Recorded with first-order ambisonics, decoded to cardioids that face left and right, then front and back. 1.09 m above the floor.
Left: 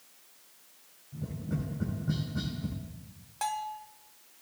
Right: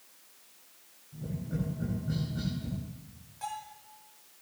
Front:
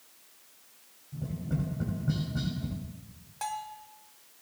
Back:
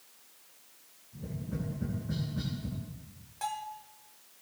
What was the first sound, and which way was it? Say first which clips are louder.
Tapping: even, front 3 dB; 20° left.